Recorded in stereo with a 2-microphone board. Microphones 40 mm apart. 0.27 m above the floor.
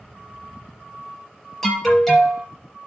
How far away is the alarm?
About 4.5 m.